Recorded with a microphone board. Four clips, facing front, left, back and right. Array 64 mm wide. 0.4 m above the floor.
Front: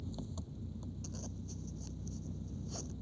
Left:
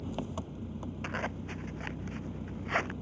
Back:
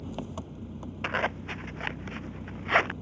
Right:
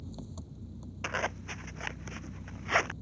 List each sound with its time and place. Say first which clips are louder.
0.0 s an engine running: left 8 dB, back 8 dB; 135° left
1.0 s a zipper: right 4 dB, back 17 dB; 170° right